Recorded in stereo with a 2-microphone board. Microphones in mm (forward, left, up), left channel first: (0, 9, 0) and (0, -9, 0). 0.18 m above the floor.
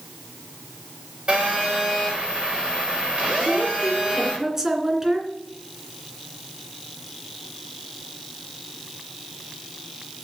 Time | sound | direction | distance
1.3 | a phone buzzing | 50° right (ahead or behind) | 6.5 m
3.4 | a woman speaking | 20° right (ahead or behind) | 2.5 m